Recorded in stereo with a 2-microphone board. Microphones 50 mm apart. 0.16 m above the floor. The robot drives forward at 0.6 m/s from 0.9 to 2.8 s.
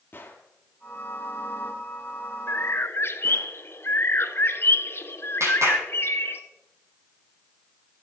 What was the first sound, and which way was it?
A gunshot, 40° left (ahead or behind).